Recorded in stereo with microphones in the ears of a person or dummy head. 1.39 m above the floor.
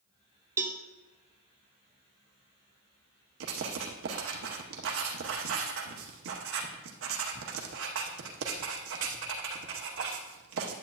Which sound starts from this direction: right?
Writing, at 3.4 s.